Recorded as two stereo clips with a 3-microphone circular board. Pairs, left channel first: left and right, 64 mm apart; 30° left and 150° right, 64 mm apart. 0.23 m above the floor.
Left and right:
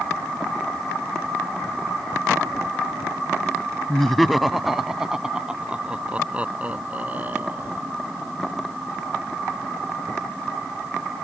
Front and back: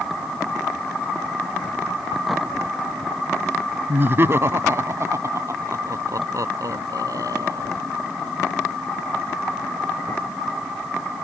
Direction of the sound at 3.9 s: 170° left.